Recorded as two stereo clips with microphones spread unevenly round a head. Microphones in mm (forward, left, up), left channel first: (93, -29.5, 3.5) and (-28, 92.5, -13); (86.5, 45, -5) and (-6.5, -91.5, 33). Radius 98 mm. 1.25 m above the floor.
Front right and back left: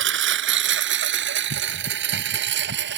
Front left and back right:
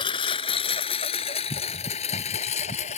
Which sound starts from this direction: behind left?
A lawn mower, at 0.0 s.